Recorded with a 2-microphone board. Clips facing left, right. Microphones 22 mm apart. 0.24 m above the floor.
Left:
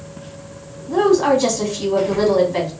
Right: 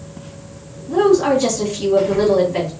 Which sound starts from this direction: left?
A woman speaking, at 0.9 s.